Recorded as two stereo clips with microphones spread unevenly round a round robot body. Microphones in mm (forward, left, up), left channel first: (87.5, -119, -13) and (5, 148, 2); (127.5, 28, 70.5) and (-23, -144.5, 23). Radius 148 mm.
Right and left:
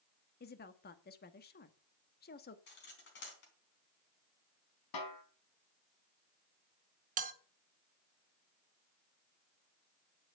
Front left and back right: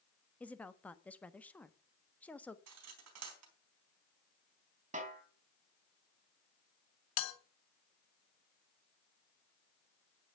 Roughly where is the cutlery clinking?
Behind right.